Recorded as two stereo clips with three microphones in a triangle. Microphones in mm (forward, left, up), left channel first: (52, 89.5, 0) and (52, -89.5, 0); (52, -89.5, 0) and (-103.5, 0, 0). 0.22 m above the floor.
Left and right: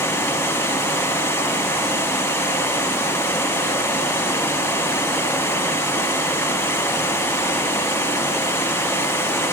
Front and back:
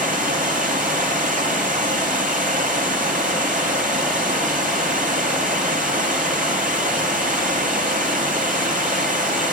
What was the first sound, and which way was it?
Running water, 160° left.